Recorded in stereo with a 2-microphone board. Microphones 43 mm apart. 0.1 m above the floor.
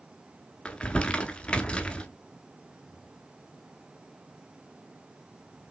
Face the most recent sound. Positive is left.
turn(degrees=25)  # may be behind; listen again after turning